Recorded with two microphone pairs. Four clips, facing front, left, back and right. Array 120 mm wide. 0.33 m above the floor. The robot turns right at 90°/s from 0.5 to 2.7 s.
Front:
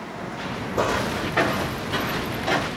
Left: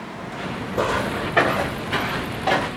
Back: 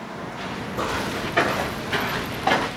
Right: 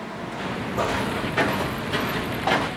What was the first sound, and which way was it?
Footsteps, 30° left.